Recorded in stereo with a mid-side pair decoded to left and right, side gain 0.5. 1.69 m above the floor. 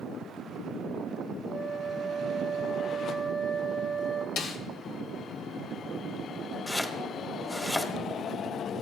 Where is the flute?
25° right, 1.0 m.